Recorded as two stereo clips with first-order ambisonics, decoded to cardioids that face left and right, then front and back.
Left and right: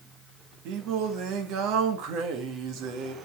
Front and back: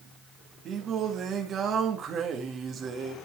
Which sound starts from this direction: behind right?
Singing, at 0.7 s.